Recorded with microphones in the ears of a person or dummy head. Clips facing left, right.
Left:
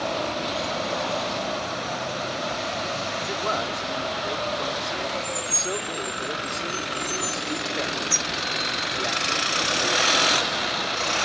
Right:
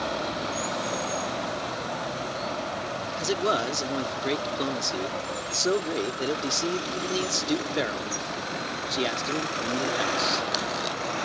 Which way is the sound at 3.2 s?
40° right (ahead or behind).